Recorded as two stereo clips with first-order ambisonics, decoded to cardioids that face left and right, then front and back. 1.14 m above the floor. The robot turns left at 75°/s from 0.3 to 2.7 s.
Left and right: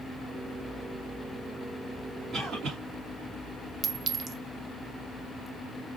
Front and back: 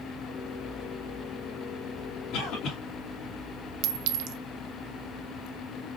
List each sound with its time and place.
2.3 s a cough: 25° right, 2.5 m; by 2.8 s 55° right, 2.5 m
3.8 s a clink: 160° right, 0.6 m